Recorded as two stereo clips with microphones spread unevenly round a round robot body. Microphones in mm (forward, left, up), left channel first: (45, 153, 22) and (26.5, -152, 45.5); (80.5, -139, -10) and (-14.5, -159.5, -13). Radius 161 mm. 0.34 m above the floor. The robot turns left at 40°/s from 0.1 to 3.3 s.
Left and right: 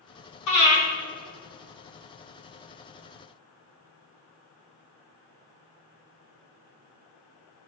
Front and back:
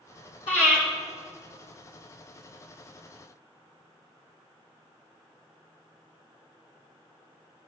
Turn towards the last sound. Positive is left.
turn(degrees=-55)